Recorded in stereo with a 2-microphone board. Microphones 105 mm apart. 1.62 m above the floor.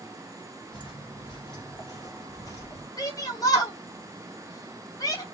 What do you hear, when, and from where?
0.7 s footsteps: 50° left (ahead or behind), 3 m; by 2.9 s 30° left (ahead or behind), 2.5 m
3.0 s a shout: 35° left (ahead or behind), 3 m